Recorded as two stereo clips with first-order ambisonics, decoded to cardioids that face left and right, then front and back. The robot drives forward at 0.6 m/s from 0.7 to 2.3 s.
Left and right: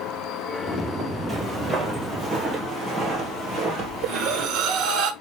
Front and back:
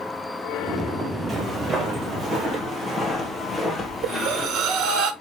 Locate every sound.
1.3 s footsteps: 160° right, 1.6 m; by 5.0 s 55° right, 1.8 m
4.0 s breathing: 135° right, 1.0 m